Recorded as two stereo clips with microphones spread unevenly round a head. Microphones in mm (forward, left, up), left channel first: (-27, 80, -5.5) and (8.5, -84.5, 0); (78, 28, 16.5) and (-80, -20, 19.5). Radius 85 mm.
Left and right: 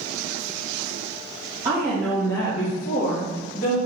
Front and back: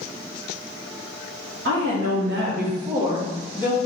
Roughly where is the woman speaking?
Behind right.